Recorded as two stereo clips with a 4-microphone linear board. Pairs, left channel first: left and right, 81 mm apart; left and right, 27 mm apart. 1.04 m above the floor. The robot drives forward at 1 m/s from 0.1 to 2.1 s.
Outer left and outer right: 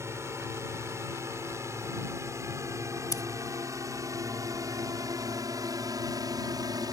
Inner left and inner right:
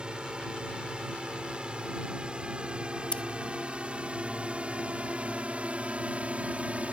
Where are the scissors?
50° left (ahead or behind).